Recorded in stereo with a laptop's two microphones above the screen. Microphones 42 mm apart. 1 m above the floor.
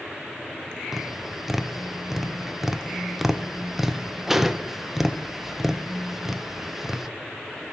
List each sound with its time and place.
0.9 s tapping: 10° right (ahead or behind), 0.6 m